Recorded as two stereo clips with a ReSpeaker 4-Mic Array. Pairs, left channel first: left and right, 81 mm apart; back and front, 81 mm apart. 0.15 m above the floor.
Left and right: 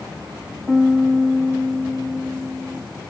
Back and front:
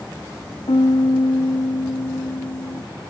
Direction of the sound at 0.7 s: 175° right.